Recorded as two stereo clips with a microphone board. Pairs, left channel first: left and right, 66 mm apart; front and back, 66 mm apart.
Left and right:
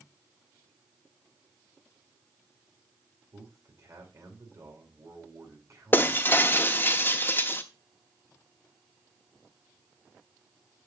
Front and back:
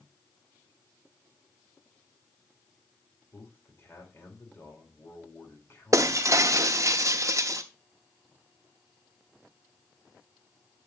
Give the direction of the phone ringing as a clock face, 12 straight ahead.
I don't hear a phone ringing.